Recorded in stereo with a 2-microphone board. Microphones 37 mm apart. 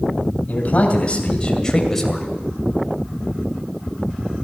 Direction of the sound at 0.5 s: 40° left (ahead or behind).